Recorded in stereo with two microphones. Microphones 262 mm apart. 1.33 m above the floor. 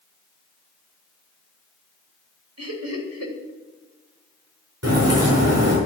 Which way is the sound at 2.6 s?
75° right (ahead or behind).